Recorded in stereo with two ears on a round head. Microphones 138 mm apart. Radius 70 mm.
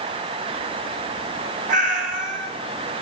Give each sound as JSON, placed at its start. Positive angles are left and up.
{"t": 1.7, "sound": "a cat meowing", "side_deg": -55, "distance_m": 1.5}